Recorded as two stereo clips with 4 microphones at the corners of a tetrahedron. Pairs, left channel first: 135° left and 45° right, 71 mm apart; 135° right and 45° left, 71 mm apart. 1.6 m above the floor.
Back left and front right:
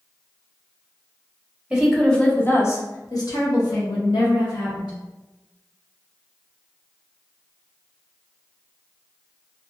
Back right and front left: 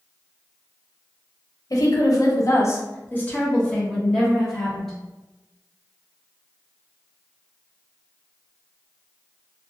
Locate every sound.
1.7 s a woman speaking: 120° right, 0.7 m; by 4.9 s 135° left, 1.7 m